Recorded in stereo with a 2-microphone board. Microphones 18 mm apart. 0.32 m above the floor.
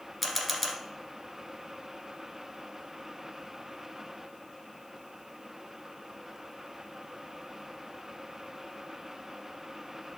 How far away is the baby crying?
I don't hear a baby crying.